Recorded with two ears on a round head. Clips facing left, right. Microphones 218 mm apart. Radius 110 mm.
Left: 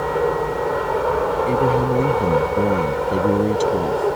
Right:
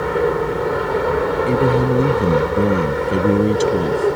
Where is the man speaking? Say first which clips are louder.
Right 3 dB; 20° right (ahead or behind).